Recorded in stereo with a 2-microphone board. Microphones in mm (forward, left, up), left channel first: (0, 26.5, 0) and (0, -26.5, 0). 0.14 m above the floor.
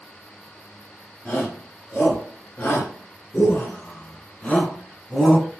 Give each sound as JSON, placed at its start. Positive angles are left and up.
{"t": 1.2, "sound": "a shout", "side_deg": 40, "distance_m": 3.0}